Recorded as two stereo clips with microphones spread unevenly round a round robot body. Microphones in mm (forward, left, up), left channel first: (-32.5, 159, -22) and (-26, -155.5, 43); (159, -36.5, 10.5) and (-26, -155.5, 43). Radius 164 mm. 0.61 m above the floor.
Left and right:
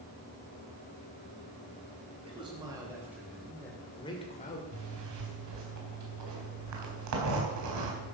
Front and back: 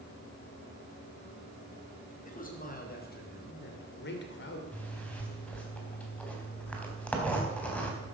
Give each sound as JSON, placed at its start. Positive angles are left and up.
{"t": 2.2, "sound": "a man speaking", "azimuth_deg": -10, "distance_m": 4.0}
{"t": 4.7, "sound": "a zipper", "azimuth_deg": -50, "distance_m": 3.5}